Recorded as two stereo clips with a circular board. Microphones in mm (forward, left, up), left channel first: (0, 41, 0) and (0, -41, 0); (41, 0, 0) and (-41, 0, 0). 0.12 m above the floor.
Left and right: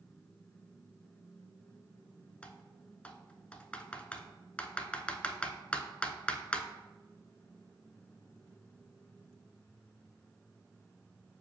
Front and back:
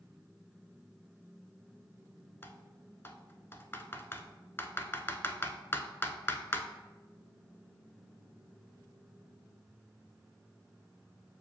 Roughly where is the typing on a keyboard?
Ahead left.